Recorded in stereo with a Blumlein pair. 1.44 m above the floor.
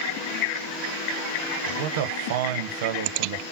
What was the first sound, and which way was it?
A man speaking, 55° right.